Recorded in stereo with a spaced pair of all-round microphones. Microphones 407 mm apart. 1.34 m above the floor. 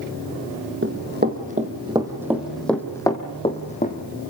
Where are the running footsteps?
30° right (ahead or behind), 2 m; by 4.0 s 20° left (ahead or behind), 2.5 m.